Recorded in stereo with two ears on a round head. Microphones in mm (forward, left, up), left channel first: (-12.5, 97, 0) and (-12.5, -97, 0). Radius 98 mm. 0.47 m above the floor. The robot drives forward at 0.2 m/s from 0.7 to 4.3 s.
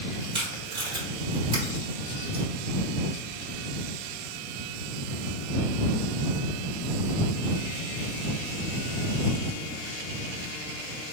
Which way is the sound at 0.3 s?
25° right (ahead or behind).